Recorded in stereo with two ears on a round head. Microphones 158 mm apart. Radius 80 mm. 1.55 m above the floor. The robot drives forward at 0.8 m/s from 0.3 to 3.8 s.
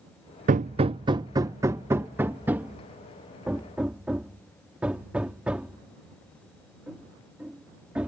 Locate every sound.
0.5 s hammering: 45° right (ahead or behind); by 8.1 s 5° right (ahead or behind)